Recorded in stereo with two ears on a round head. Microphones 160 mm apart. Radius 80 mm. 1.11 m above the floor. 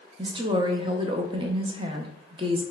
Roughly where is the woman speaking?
Right.